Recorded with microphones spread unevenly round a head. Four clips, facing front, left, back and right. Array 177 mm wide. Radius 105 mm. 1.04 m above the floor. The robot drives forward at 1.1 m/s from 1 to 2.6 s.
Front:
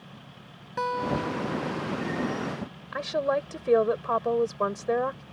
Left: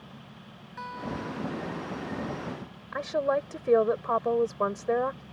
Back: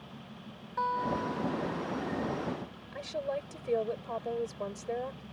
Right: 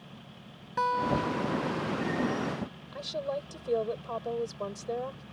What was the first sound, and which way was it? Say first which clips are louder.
A guitar: right 8 dB, front 3 dB; 55° right.